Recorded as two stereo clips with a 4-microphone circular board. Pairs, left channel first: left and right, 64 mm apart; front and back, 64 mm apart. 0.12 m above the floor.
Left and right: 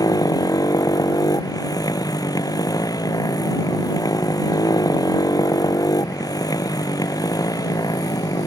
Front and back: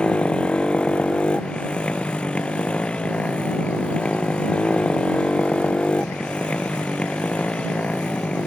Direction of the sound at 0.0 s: 75° left.